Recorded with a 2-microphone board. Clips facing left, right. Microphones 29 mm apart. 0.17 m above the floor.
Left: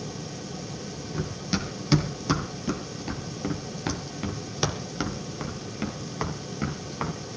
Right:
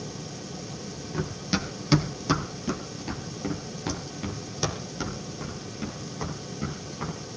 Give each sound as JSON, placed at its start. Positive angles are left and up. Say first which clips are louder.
{"t": 1.1, "sound": "running footsteps", "louder": "right 1 dB", "side_deg": -15, "distance_m": 4.0}